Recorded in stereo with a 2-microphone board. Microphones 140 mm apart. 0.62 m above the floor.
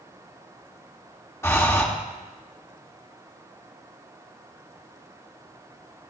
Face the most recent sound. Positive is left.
turn(degrees=20)  # may be behind; listen again after turning